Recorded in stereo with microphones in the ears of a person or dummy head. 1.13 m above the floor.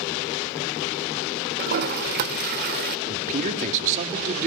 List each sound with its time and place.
1.6 s a toilet flushing: 50° right (ahead or behind), 1.2 m
3.1 s a man speaking: 40° right (ahead or behind), 2 m